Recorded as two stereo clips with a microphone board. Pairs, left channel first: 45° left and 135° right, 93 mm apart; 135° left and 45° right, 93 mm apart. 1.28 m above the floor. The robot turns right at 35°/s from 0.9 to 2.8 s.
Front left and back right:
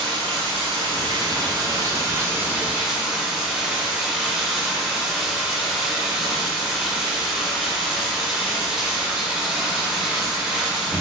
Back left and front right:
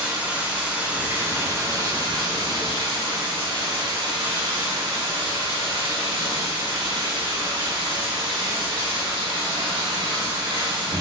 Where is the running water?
120° right, 2.5 m; by 11.0 s 55° right, 2.5 m.